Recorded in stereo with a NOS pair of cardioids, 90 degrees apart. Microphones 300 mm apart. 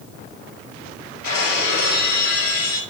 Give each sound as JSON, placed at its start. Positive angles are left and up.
{"t": 1.2, "sound": "breaking glass", "azimuth_deg": 50, "distance_m": 4.0}